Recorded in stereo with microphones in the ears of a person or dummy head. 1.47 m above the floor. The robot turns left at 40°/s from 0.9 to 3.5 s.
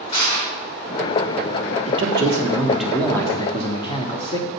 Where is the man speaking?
145° right, 1.3 m; by 4.5 s 150° left, 1.3 m.